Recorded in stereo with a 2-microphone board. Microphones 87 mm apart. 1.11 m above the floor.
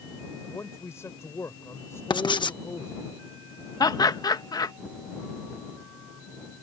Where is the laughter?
45° left (ahead or behind).